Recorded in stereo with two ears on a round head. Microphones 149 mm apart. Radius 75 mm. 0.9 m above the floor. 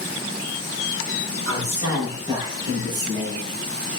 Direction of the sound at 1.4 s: 25° right (ahead or behind).